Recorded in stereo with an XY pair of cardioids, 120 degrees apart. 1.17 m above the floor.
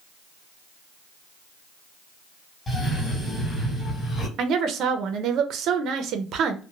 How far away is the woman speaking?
About 0.6 m.